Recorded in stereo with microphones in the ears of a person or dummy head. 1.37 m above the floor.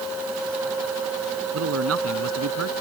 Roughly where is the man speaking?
Right.